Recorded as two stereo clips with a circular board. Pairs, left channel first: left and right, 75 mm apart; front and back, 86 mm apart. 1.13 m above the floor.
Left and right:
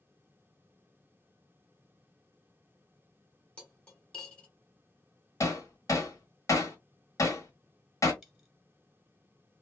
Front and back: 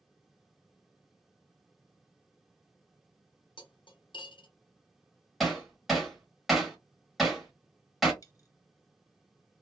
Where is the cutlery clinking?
15° left, 0.9 m.